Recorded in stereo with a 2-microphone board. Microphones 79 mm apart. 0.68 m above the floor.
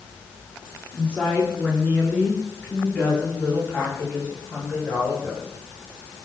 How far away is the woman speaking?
About 6.5 m.